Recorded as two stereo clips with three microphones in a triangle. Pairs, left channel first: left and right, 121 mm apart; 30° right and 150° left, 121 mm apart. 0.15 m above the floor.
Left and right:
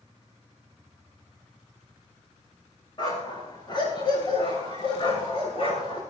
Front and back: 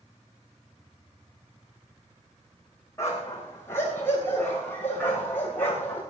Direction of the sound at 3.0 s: 40° left.